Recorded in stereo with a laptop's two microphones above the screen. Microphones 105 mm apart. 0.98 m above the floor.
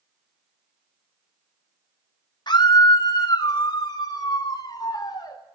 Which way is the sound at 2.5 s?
45° left (ahead or behind).